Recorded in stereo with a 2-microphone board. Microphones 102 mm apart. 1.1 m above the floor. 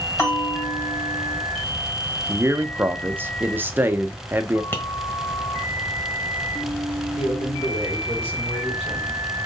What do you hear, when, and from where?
0.2 s a bell: 25° left (ahead or behind), 2.5 m
2.3 s a man speaking: 20° right (ahead or behind), 0.5 m
4.7 s tapping: 20° left (ahead or behind), 1.2 m
7.2 s a man speaking: 75° left (ahead or behind), 4 m